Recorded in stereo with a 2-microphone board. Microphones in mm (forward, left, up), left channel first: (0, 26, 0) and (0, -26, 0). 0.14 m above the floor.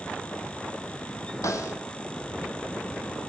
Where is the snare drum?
75° left (ahead or behind), 1.3 m.